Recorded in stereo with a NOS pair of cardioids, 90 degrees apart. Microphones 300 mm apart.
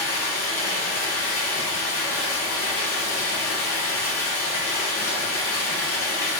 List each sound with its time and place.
0.0 s running water: 50° left, 1.6 m